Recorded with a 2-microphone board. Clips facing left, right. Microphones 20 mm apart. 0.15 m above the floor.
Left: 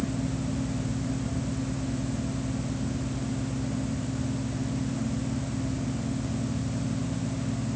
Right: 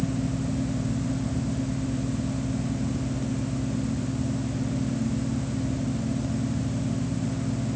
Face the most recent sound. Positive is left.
No sound to turn to.